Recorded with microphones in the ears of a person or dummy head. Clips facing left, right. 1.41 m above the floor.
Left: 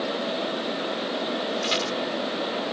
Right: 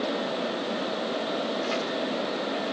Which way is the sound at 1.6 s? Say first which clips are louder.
Left 1 dB; 50° left (ahead or behind).